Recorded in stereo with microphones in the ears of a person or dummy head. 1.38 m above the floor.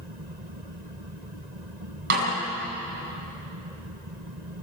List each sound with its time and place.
2.1 s a snare drum: 60° right (ahead or behind), 8.5 m